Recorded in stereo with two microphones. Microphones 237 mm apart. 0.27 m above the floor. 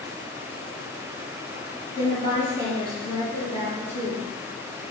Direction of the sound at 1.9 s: 20° left (ahead or behind).